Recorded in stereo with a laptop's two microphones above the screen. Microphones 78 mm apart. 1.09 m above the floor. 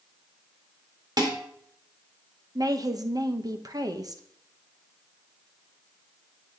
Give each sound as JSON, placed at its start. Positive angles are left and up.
{"t": 1.2, "sound": "dishes clattering", "side_deg": -60, "distance_m": 2.5}
{"t": 2.5, "sound": "a woman speaking", "side_deg": -50, "distance_m": 0.9}